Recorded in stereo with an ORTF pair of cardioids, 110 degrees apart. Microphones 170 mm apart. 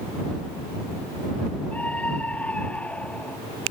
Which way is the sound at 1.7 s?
10° left.